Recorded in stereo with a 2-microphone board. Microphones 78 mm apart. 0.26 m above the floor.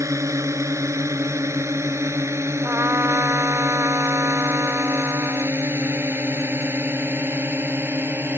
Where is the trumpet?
35° right (ahead or behind).